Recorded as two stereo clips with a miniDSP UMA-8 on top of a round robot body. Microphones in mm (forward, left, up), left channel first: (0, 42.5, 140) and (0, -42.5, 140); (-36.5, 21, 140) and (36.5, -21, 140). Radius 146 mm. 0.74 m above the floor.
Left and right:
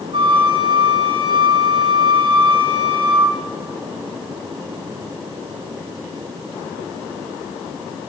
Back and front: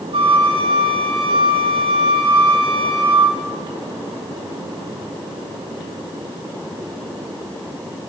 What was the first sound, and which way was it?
A flute, 60° right.